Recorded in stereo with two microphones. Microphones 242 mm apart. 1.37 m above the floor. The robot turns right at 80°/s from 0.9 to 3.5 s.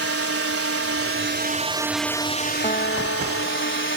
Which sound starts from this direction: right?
A drone, at 0.0 s.